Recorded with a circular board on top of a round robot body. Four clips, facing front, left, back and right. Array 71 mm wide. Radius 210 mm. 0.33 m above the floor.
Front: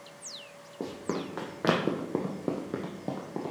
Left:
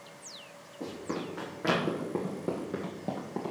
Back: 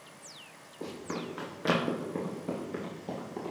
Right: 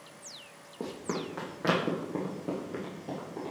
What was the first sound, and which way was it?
Running footsteps, 30° right.